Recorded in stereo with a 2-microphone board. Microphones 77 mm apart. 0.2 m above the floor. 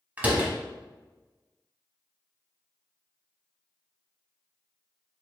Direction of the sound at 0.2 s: 20° right (ahead or behind).